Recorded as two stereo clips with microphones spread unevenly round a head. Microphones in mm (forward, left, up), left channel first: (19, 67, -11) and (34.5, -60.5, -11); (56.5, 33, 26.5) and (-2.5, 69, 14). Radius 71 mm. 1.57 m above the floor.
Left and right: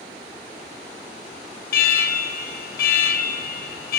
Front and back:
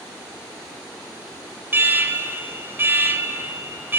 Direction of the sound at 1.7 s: 90° left.